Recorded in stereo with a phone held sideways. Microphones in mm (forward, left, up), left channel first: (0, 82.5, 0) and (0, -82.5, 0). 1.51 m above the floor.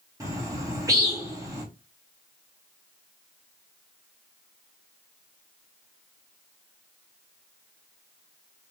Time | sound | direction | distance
0.2 | a bird | 20° right (ahead or behind) | 1.3 m